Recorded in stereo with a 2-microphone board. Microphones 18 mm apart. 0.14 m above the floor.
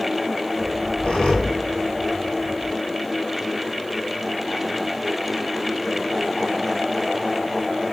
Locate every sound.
0.6 s a squeak: 70° left (ahead or behind), 2 m